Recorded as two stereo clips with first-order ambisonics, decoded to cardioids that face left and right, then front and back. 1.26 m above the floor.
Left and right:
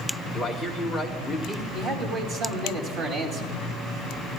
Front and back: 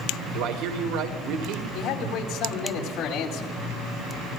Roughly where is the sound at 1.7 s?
Ahead right.